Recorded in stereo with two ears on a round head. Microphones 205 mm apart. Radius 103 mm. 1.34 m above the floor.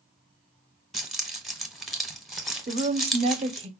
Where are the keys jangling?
Centre (ahead or behind), 0.7 m.